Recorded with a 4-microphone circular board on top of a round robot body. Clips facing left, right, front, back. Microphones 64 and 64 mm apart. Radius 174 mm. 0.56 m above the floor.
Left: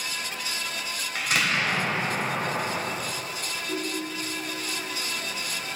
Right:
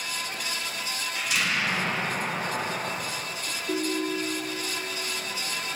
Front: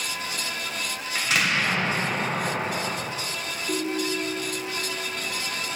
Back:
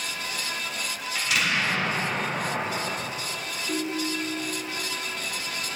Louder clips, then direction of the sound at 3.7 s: Right 5 dB, front 2 dB; 85° right.